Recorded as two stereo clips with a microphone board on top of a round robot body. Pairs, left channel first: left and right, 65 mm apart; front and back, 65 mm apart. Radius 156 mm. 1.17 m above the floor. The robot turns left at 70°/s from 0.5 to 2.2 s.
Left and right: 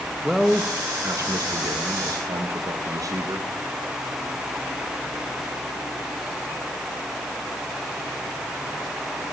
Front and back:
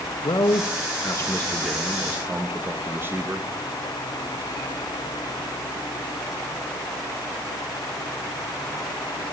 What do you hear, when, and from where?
0.2 s a man speaking: 5° right, 2.5 m; by 3.5 s 125° right, 2.5 m